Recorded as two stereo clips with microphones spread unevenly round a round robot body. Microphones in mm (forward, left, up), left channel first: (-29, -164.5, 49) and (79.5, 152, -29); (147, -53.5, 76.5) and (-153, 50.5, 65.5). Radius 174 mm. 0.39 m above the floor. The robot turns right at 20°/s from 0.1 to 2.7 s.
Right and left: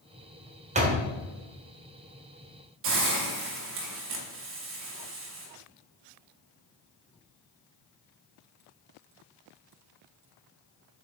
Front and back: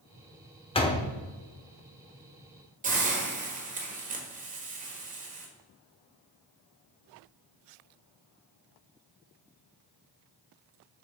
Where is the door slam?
45° left, 1.0 m; by 1.1 s 50° left, 1.0 m.